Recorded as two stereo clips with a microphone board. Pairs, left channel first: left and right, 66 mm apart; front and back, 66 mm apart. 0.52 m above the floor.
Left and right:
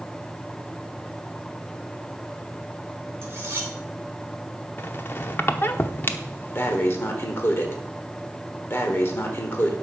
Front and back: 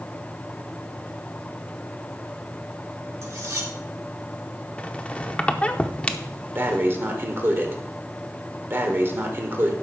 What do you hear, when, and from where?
3.2 s cutlery clinking: 145° right, 2.5 m
4.8 s a squeak: 60° left, 0.7 m
6.5 s breathing: 135° left, 1.1 m